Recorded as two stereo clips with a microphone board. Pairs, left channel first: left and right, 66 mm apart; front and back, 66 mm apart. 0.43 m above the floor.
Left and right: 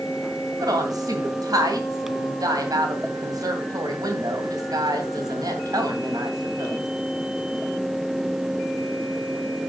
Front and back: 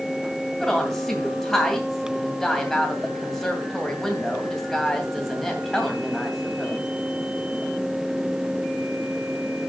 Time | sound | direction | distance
0.6 | a woman speaking | 85° right | 2.5 m